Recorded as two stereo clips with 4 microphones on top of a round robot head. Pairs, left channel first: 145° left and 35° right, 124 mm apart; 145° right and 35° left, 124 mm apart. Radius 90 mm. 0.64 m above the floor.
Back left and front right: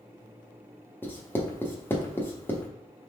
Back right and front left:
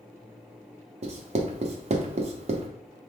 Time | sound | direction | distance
1.0 | writing | 70° left | 0.8 m